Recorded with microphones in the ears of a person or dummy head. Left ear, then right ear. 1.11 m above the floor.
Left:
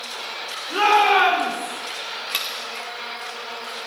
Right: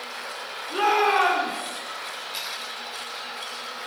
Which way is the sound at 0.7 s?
15° left (ahead or behind).